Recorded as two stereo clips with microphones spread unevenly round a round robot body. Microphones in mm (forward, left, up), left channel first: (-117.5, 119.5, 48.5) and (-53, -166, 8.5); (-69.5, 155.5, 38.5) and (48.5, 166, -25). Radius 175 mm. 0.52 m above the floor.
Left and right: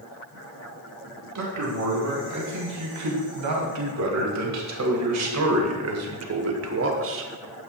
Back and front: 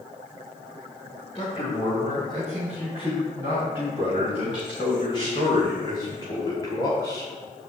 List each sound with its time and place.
1.4 s a man speaking: 100° right, 5 m; by 7.3 s 80° right, 1.6 m